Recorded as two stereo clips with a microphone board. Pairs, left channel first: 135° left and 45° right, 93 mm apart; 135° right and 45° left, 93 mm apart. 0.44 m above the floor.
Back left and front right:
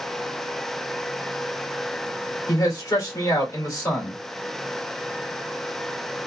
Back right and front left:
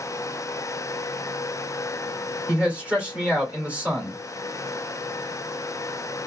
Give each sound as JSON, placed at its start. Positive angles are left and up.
{"t": 2.5, "sound": "a man speaking", "azimuth_deg": 110, "distance_m": 1.5}